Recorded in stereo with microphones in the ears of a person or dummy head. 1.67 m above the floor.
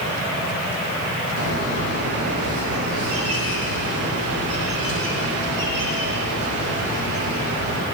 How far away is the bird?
About 6.5 m.